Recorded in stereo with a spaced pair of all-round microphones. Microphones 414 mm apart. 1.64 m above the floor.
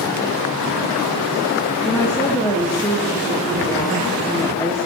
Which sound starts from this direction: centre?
A woman speaking, at 1.8 s.